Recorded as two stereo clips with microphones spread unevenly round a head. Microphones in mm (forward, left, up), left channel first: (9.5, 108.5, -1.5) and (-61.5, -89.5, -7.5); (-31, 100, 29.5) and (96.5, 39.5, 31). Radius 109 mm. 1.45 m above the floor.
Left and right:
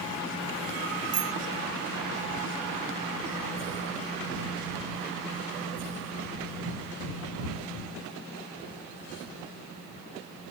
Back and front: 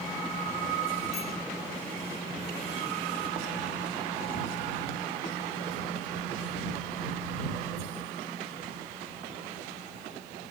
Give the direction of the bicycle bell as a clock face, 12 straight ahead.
5 o'clock.